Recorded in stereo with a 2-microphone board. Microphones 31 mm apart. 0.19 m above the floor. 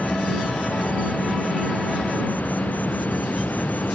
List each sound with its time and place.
0.0 s an insect: 75° left (ahead or behind)